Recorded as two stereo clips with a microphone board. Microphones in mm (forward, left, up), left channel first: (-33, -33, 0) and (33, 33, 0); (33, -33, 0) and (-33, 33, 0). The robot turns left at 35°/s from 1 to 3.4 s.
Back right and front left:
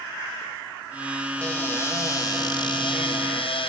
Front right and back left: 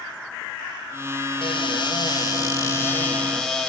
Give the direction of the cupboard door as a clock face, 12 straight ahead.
2 o'clock.